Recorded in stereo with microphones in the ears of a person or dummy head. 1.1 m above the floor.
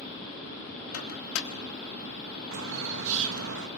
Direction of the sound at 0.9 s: 85° left.